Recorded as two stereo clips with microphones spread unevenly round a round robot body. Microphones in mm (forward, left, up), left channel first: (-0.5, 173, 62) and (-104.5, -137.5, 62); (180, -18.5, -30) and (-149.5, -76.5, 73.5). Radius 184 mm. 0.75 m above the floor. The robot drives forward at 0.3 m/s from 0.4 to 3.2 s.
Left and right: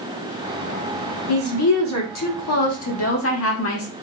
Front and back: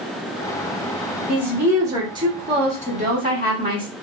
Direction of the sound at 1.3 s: 95° left.